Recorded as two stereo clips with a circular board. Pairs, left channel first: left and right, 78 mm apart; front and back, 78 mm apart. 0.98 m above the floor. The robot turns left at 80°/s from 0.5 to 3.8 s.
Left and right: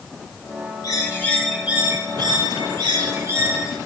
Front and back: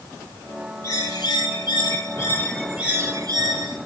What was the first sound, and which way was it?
A bird, 55° left.